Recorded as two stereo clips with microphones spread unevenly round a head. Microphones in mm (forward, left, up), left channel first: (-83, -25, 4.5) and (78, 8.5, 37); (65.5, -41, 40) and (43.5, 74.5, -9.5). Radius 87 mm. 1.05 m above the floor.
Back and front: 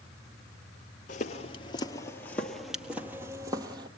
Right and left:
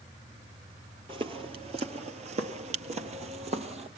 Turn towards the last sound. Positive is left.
turn(degrees=55)